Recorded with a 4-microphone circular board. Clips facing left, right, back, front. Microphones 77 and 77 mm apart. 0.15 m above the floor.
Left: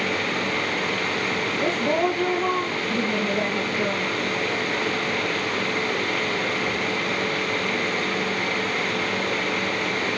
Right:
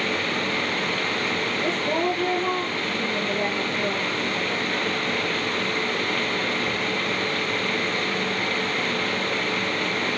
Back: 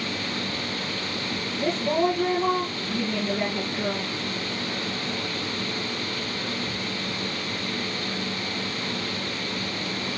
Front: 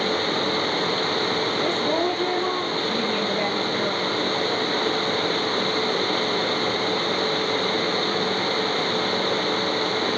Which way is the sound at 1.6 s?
95° left.